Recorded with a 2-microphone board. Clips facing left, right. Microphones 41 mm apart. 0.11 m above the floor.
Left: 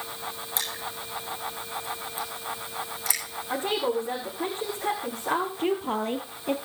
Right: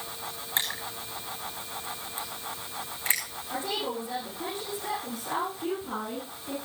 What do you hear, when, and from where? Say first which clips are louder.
0.6 s crushing: right 3 dB; 35° right (ahead or behind), 8 m
3.5 s a woman speaking: left 5 dB; 35° left (ahead or behind), 8 m
5.6 s a woman speaking: left 6 dB; 55° left (ahead or behind), 2 m